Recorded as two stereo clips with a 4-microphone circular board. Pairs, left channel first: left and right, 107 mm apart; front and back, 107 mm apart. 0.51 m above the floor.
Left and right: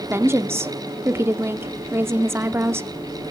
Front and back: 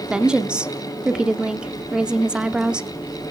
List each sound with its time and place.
0.1 s a woman speaking: 110° right, 0.7 m